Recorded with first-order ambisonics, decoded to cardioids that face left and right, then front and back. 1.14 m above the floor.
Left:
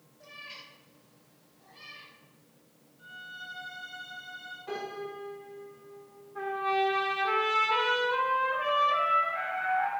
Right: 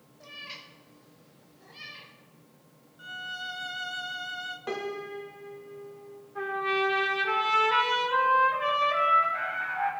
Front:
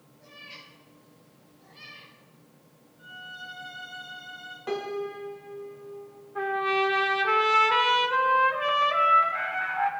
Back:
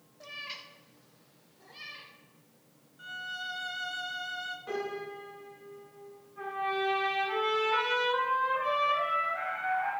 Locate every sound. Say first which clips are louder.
0.2 s a cat meowing: right 3 dB, back 4 dB; 160° right, 1.3 m; by 2.1 s 130° right, 2.5 m
3.0 s a violin: right 7 dB, back 3 dB; 125° right, 0.9 m
4.7 s a piano: even, front 9 dB; 55° right, 2 m
6.3 s a trumpet: right 1 dB, front 7 dB; 15° right, 1.8 m